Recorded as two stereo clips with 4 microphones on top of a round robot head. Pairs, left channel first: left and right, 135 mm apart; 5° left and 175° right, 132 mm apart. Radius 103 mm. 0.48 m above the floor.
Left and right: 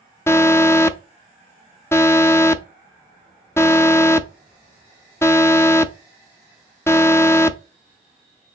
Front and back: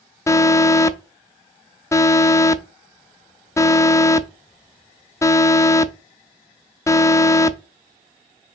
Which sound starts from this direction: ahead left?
An alarm, at 0.3 s.